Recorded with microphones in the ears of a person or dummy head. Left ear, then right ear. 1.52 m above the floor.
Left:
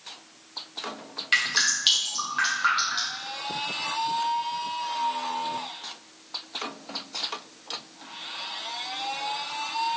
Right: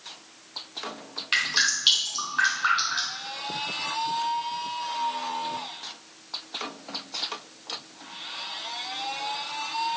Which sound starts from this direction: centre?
Dripping, at 1.3 s.